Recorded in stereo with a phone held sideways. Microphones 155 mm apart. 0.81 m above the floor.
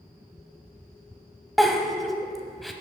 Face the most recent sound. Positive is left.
turn(degrees=0)  # may be behind; listen again after turning